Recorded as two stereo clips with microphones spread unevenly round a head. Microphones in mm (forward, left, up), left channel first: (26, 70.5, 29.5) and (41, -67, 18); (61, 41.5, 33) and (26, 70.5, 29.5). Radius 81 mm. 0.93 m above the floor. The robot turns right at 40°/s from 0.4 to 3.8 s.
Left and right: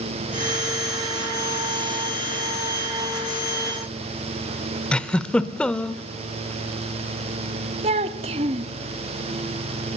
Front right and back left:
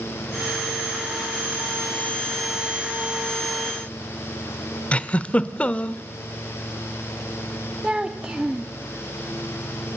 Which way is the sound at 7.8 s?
140° right.